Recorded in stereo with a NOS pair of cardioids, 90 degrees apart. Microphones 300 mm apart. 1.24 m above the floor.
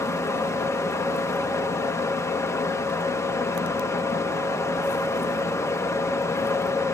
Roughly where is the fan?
Ahead.